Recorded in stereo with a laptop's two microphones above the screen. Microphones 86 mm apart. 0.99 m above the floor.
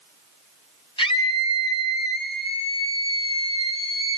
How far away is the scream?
About 5.5 m.